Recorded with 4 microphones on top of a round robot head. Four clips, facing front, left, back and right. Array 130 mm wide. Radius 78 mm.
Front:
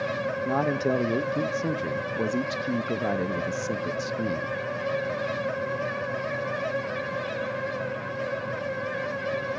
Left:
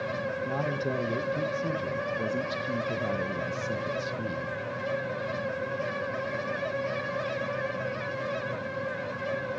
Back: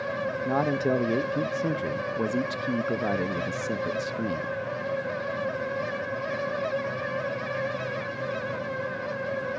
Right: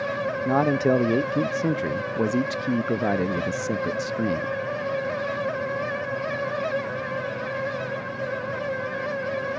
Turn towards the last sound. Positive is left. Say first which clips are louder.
# right 13 dB, even
turn(degrees=-85)